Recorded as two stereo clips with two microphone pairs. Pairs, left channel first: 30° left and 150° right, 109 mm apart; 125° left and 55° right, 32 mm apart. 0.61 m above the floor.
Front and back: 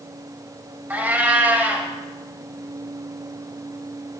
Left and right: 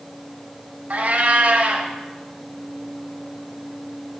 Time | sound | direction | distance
0.9 | a cat meowing | 80° right | 0.6 m